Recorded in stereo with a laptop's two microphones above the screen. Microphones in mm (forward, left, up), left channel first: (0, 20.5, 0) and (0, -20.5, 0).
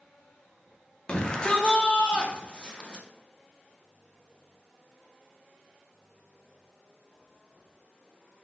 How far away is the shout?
About 0.6 m.